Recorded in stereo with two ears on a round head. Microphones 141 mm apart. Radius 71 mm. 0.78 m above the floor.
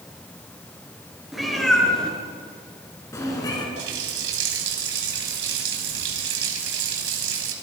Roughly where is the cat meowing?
Centre.